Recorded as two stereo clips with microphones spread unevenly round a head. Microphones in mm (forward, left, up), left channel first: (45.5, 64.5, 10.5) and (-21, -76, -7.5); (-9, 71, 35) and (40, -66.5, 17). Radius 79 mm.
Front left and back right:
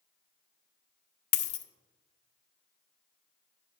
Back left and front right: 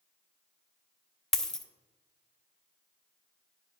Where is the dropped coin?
25° left, 0.6 m.